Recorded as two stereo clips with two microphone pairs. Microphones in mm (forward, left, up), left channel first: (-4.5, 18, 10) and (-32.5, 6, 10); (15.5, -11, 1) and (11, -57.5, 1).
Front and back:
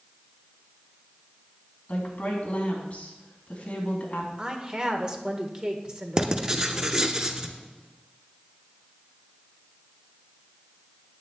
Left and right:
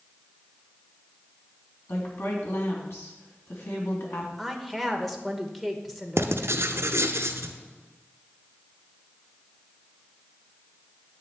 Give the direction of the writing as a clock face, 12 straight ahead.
3 o'clock.